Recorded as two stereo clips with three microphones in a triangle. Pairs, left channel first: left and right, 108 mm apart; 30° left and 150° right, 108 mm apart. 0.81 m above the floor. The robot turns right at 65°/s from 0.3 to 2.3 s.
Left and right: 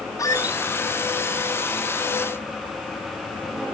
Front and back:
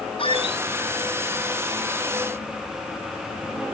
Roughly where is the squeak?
Ahead left.